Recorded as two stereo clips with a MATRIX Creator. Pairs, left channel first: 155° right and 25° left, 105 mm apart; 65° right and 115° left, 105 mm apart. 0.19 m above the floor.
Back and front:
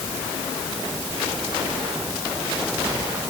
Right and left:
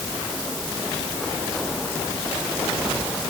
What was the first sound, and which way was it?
Only background noise.